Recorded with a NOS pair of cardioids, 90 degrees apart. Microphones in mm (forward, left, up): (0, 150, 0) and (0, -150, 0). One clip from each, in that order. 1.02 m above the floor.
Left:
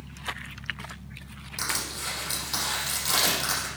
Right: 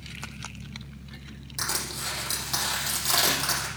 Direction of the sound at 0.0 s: 45° right.